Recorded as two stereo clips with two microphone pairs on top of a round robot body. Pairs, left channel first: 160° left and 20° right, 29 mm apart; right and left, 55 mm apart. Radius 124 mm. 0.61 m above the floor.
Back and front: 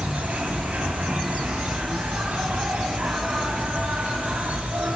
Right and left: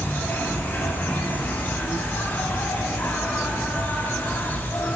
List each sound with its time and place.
0.0 s an insect: 40° right, 3 m